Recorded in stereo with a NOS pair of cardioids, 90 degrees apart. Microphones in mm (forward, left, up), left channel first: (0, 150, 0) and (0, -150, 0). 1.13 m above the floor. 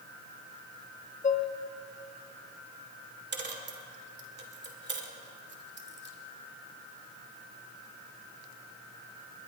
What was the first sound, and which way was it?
Dishes clattering, 25° left.